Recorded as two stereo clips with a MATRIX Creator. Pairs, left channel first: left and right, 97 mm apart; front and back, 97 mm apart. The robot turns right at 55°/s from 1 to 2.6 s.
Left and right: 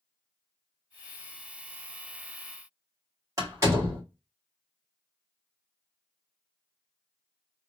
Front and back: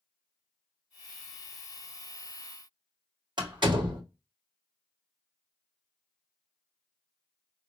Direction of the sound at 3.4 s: 145° right.